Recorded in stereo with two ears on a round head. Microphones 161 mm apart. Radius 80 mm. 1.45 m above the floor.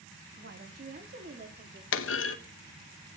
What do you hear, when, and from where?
0.4 s a woman speaking: 60° right (ahead or behind), 1.9 m; by 1.8 s 45° right (ahead or behind), 3 m
1.9 s a clunk: 75° left (ahead or behind), 1.2 m